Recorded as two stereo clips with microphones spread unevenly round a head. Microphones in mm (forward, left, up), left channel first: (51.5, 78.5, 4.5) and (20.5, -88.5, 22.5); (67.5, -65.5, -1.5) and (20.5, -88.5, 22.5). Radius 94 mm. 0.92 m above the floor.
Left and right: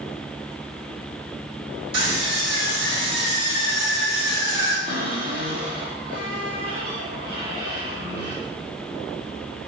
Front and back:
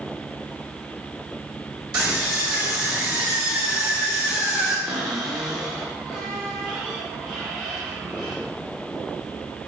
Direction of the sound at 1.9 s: 165° right.